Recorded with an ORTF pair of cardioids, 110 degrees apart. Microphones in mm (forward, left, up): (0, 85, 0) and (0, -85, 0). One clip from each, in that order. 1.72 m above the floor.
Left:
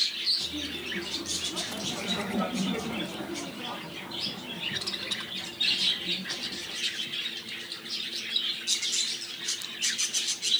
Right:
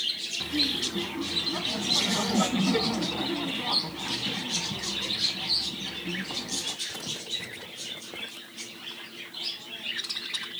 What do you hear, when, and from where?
0.4 s laughter: 40° right, 2 m